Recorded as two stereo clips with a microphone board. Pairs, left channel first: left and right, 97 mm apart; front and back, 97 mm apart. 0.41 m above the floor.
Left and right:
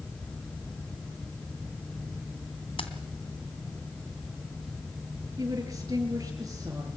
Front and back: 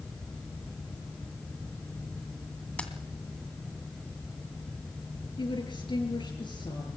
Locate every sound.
2.8 s keys jangling: 75° left, 2.5 m
5.4 s a woman speaking: 35° right, 7 m